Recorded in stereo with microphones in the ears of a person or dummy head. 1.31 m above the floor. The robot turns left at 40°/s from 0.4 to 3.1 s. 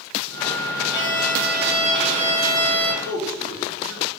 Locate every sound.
0.9 s a violin: 35° left, 1.6 m; by 2.9 s 45° right, 1.6 m
3.0 s a man speaking: 80° right, 3.5 m; by 4.1 s 85° right, 3.5 m